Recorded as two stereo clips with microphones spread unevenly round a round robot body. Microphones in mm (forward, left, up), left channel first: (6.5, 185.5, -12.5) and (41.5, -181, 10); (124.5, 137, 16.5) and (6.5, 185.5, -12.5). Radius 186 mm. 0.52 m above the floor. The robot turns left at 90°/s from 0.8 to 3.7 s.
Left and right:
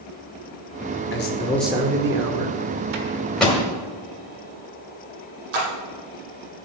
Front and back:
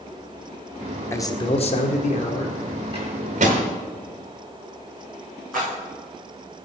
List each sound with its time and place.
1.1 s a man speaking: 55° left, 1.6 m; by 2.8 s 100° right, 1.6 m
2.9 s a microwave: 135° right, 1.8 m; by 3.6 s 165° left, 1.8 m
5.5 s a splash: 110° right, 3.5 m